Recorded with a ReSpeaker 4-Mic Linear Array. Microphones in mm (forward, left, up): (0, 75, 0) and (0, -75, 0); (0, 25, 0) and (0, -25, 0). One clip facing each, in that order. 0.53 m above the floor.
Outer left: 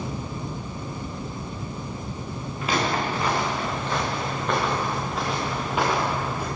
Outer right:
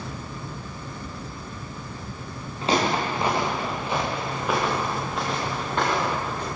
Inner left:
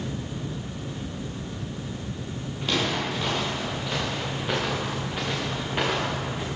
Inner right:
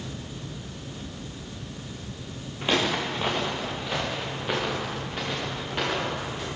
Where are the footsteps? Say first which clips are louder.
Outer right 2 dB, inner right 2 dB; 30° right (ahead or behind), 3.5 m; by 6.5 s 15° left (ahead or behind), 4.5 m.